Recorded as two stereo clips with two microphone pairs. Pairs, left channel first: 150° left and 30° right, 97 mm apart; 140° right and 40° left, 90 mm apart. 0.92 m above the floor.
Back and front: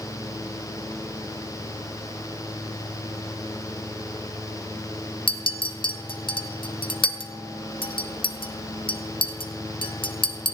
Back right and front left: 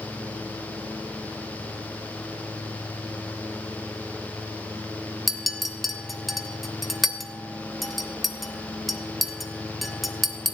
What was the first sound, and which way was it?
A clink, 130° left.